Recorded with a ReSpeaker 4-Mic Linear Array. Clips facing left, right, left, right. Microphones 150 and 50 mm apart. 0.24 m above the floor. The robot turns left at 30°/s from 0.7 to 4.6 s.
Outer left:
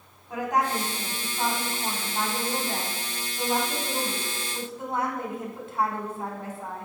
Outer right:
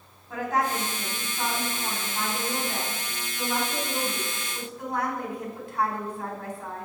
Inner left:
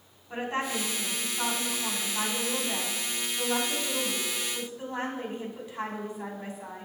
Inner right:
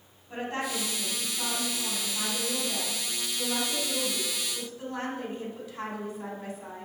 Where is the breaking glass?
No breaking glass in this recording.